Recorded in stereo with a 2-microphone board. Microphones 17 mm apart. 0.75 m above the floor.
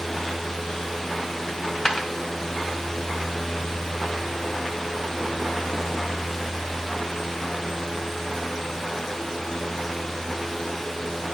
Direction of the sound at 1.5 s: 35° left (ahead or behind).